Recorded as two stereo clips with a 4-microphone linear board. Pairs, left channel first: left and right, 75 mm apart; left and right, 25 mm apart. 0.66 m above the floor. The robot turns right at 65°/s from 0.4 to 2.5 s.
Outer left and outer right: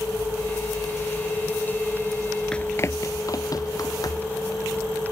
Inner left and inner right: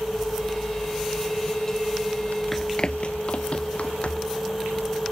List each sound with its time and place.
2.5 s running footsteps: 15° left (ahead or behind); by 4.4 s 60° left (ahead or behind)